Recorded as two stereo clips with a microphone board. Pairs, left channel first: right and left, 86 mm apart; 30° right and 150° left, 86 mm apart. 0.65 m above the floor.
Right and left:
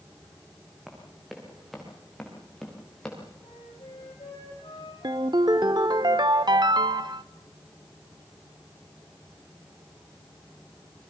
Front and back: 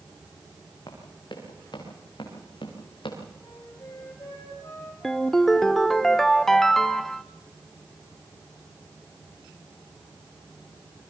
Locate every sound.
0.9 s running footsteps: 5° left, 7.5 m; by 3.2 s 10° right, 7 m
3.4 s a flute: 85° right, 6.5 m
5.0 s a ringtone: 55° left, 0.6 m